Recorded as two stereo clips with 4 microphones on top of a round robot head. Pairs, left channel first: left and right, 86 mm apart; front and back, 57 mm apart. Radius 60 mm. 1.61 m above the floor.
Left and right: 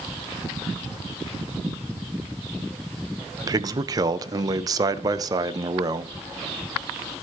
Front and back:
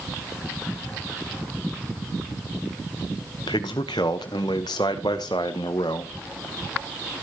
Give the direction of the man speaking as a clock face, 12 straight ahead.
1 o'clock.